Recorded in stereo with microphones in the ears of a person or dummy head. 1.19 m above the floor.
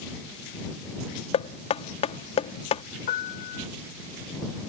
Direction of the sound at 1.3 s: 35° left (ahead or behind).